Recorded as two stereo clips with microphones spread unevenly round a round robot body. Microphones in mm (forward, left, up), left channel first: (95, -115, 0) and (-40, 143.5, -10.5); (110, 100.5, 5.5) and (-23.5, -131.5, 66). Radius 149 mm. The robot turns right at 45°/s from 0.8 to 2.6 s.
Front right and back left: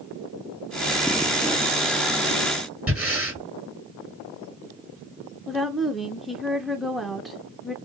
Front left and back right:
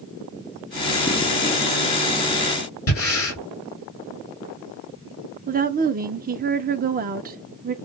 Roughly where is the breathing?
Ahead left.